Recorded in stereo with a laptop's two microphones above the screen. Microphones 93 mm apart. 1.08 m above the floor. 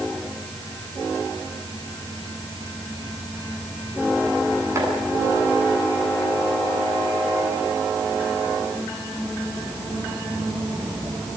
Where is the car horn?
No car horn in this recording.